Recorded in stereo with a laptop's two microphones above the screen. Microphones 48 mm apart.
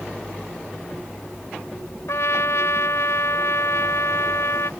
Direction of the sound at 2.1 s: 80° left.